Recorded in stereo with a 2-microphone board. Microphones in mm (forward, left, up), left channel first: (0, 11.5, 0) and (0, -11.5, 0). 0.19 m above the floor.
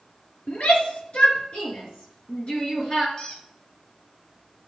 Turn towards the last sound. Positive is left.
turn(degrees=30)  # may be behind; listen again after turning